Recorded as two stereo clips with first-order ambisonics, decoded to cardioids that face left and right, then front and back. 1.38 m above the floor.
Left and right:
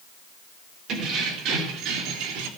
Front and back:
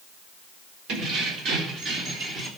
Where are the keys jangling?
140° right, 3.5 m; by 2.5 s 110° right, 3 m.